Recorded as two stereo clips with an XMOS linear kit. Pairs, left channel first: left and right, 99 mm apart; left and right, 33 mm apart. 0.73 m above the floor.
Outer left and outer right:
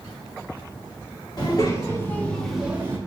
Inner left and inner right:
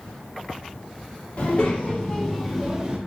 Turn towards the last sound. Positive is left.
turn(degrees=-25)  # may be behind; listen again after turning